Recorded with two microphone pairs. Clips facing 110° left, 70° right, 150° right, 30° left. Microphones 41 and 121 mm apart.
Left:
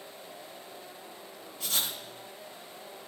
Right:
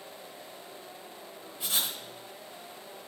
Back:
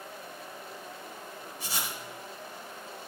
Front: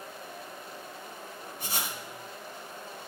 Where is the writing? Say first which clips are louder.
Even, front 1 dB; straight ahead, 1.3 m.